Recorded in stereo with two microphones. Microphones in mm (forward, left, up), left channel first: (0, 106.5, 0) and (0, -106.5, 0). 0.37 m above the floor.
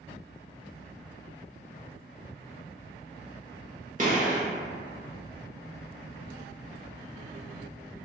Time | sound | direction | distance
4.0 | a gunshot | 35° right (ahead or behind) | 0.8 m